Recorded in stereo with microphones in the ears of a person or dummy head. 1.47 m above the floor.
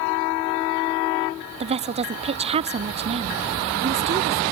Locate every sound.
1.6 s a woman speaking: 30° right (ahead or behind), 0.7 m